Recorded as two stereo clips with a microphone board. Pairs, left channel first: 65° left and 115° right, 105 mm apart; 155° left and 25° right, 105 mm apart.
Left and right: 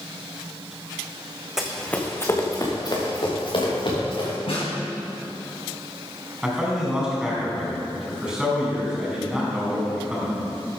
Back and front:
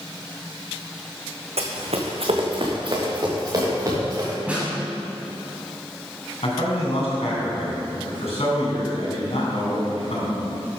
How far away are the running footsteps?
About 1.7 m.